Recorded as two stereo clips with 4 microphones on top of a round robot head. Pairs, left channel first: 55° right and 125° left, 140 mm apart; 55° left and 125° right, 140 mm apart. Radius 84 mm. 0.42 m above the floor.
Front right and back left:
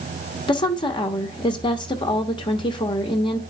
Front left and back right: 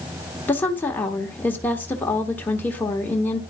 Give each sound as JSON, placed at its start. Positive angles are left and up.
{"t": 0.5, "sound": "a woman speaking", "azimuth_deg": -15, "distance_m": 1.3}